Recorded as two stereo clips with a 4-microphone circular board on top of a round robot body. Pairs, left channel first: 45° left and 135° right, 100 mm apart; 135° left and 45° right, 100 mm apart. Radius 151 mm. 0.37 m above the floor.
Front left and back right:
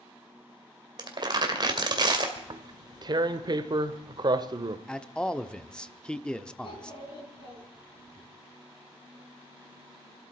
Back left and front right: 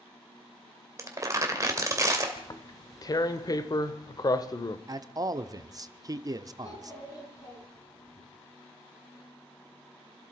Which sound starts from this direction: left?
A child speaking, at 6.6 s.